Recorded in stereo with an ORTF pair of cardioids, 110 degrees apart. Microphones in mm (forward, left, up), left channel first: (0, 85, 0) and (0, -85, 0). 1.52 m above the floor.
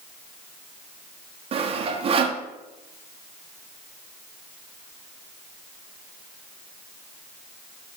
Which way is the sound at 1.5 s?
35° right.